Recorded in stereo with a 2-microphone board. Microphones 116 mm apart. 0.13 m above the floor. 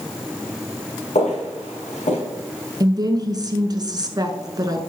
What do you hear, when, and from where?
1.1 s footsteps: 90° left, 4.5 m
2.8 s a woman speaking: 35° right (ahead or behind), 1.3 m